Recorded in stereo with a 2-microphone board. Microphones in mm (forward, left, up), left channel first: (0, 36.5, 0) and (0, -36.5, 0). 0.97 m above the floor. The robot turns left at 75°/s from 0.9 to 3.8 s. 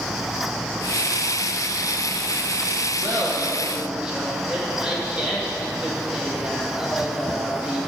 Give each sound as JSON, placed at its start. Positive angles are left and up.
{"t": 3.0, "sound": "laughter", "azimuth_deg": -105, "distance_m": 1.5}